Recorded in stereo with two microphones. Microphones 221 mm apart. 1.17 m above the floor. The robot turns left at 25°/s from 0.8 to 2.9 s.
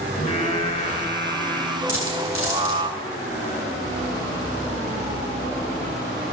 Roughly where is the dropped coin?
Left.